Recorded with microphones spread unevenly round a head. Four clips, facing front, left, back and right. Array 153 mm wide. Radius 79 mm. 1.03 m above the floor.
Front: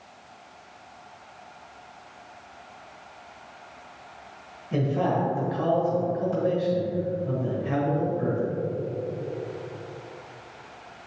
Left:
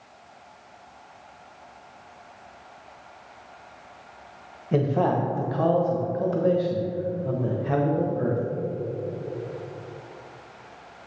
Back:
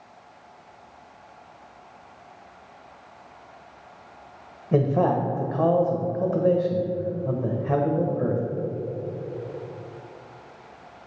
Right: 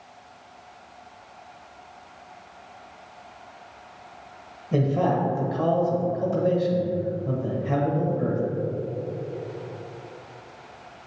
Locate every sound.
4.7 s a man speaking: 160° left, 1.0 m